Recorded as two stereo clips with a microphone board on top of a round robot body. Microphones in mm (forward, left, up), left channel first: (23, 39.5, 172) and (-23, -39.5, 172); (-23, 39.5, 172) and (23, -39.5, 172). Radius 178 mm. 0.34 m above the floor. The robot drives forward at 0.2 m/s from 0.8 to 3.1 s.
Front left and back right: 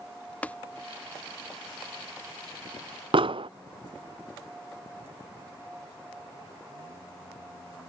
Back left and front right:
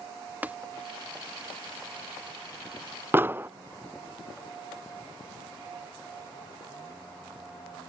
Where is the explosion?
125° right.